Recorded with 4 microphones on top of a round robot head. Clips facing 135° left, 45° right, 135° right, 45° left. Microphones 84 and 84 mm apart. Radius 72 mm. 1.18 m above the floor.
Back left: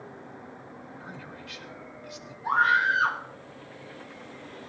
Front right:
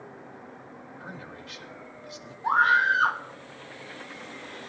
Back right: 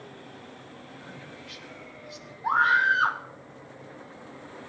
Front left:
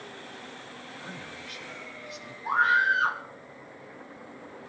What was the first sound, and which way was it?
A man speaking, 5° left.